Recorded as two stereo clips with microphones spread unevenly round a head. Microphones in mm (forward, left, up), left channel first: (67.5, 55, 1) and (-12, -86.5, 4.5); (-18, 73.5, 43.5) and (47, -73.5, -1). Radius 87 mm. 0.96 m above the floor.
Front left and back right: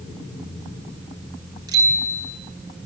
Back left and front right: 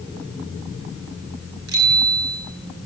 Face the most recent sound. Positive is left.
turn(degrees=-55)